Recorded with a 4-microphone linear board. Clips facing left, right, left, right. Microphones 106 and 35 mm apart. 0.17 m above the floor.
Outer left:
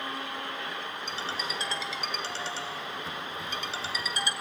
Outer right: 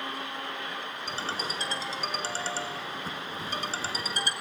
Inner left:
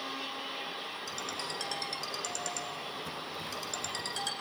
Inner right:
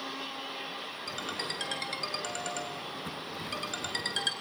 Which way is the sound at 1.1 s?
40° right (ahead or behind).